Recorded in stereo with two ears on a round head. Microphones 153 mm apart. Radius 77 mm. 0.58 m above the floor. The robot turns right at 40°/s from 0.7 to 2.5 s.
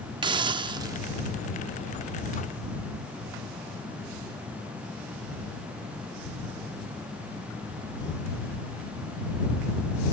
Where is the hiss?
25° right (ahead or behind); by 1.0 s 20° right (ahead or behind).